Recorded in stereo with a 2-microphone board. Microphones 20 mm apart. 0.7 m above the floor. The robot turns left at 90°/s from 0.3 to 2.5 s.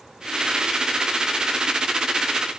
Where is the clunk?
No clunk in this recording.